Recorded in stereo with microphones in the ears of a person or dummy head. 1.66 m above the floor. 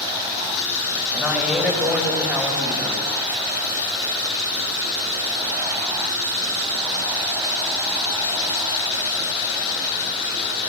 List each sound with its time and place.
1.1 s a woman speaking: 5° right (ahead or behind), 3.5 m